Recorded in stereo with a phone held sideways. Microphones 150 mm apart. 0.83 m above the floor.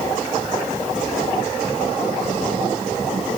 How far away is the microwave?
No microwave in this recording.